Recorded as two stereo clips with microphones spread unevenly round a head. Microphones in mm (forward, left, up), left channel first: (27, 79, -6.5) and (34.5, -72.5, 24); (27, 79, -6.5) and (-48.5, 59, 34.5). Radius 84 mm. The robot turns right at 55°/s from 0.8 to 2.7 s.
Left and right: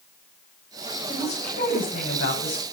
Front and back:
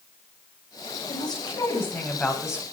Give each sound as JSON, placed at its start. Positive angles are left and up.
{"t": 1.1, "sound": "a woman speaking", "azimuth_deg": 35, "distance_m": 9.5}